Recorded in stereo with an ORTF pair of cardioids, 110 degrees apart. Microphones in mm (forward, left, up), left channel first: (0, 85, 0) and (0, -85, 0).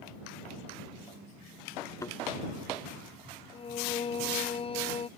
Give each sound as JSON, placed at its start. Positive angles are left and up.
{"t": 2.0, "sound": "a thud", "azimuth_deg": 20}
{"t": 3.5, "sound": "singing", "azimuth_deg": 35}